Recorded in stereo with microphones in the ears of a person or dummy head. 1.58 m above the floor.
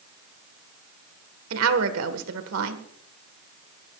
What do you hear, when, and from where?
1.5 s a woman speaking: 75° right (ahead or behind), 1.5 m